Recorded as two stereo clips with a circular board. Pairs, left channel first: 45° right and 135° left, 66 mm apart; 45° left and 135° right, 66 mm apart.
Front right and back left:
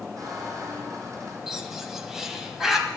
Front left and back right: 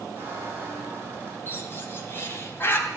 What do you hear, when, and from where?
0.2 s a squeak: 170° left, 5 m
1.5 s a bird: 55° left, 1.9 m